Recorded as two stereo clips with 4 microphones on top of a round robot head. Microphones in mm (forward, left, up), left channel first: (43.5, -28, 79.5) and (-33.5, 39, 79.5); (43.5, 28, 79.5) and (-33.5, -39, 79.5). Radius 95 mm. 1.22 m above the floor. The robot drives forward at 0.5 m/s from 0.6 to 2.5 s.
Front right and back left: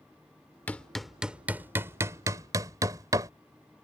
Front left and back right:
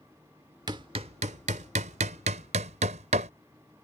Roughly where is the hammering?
Right.